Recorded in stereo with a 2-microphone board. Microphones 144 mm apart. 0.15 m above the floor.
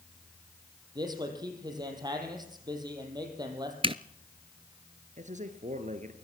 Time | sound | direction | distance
0.9 | a man speaking | 30° right (ahead or behind) | 5 m
3.8 | a zipper | 40° right (ahead or behind) | 0.7 m
5.2 | a man speaking | 60° right (ahead or behind) | 2.5 m